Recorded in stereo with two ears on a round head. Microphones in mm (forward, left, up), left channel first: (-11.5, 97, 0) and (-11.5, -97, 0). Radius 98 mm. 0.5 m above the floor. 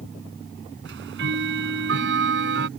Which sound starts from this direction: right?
Ticking, at 0.8 s.